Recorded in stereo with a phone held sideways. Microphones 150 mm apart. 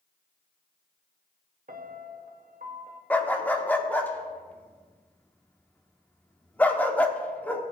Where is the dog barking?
10° left (ahead or behind), 1.0 m.